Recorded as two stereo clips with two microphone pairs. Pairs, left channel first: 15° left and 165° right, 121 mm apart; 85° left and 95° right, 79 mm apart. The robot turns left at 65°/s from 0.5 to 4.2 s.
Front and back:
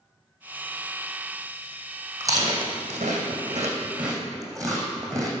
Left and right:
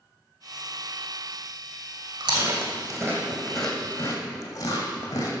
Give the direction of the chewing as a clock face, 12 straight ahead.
3 o'clock.